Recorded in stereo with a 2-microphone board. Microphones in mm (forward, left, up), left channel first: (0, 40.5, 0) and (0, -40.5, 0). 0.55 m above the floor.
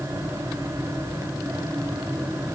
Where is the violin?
No violin in this recording.